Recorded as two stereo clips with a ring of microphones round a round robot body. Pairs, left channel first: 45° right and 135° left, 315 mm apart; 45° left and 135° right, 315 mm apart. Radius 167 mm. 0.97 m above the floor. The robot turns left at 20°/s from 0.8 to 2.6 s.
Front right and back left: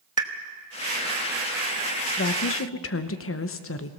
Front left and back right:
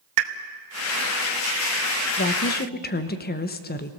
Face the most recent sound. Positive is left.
turn(degrees=-10)